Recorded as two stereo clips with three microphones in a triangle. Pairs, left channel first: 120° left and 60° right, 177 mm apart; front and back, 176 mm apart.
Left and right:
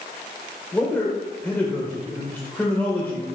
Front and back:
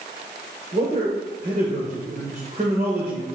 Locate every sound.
0.7 s a man speaking: 160° right, 1.8 m